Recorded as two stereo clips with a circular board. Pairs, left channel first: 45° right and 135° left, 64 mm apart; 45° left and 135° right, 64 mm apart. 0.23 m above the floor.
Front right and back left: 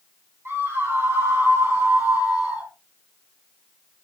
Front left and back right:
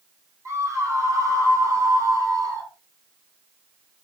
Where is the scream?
175° right, 8 m; by 2.7 s 160° right, 6 m.